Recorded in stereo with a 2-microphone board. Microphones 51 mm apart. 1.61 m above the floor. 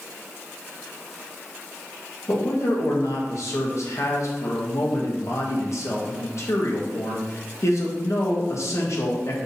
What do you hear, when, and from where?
2.3 s a man speaking: 60° left (ahead or behind), 1.8 m